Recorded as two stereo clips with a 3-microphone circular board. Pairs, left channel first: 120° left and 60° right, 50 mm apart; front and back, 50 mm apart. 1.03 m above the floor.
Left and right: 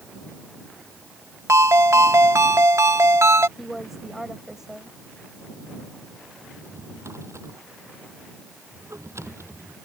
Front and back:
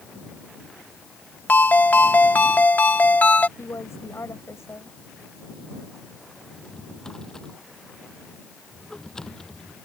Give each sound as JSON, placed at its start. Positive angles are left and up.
{"t": 1.5, "sound": "a ringtone", "azimuth_deg": -55}
{"t": 3.6, "sound": "a woman speaking", "azimuth_deg": 20}
{"t": 6.5, "sound": "a drawer", "azimuth_deg": -80}